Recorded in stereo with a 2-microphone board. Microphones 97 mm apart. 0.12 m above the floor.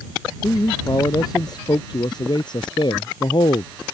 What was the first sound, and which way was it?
A man speaking, 40° left (ahead or behind).